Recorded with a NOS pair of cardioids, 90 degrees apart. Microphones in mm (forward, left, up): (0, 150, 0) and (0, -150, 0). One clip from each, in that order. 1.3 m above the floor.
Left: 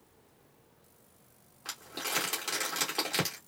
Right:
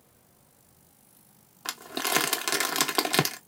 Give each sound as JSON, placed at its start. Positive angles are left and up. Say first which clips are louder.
{"t": 1.6, "sound": "crumpling", "louder": "right 7 dB", "azimuth_deg": -55, "distance_m": 1.2}